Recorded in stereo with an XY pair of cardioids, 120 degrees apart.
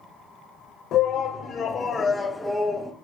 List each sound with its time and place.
0.9 s a shout: 60° left, 1.0 m; by 2.9 s 15° right, 0.8 m